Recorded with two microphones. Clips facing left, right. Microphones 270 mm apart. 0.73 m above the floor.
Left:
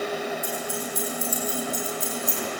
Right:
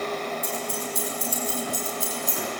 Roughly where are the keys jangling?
Right.